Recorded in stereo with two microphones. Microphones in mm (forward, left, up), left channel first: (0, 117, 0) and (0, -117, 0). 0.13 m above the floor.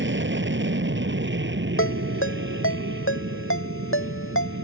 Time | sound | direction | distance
0.0 | an aircraft | 55° right (ahead or behind) | ?
1.8 | a ringtone | 60° left (ahead or behind) | ?